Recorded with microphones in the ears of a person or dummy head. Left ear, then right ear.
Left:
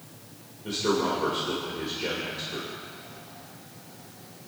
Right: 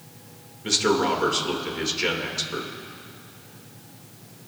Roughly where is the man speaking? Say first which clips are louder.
Right 5 dB; right.